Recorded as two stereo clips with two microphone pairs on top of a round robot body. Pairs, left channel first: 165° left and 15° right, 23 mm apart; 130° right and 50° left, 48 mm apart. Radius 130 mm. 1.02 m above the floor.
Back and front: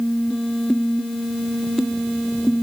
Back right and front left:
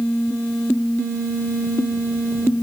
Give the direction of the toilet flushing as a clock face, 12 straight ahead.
I don't hear a toilet flushing.